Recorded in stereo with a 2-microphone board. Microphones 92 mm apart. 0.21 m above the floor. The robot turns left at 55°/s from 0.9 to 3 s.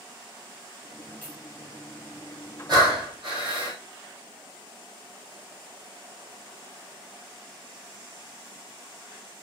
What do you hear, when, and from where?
1.2 s a clink: 15° left (ahead or behind), 2.5 m; by 1.4 s 10° left (ahead or behind), 2.5 m
2.7 s breathing: 45° right (ahead or behind), 2 m; by 3.8 s 65° right (ahead or behind), 2 m